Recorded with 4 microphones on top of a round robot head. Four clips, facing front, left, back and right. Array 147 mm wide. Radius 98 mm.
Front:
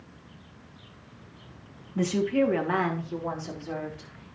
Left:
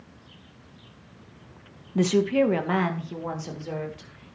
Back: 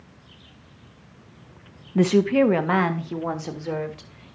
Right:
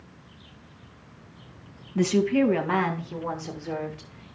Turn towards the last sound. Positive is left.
turn(degrees=170)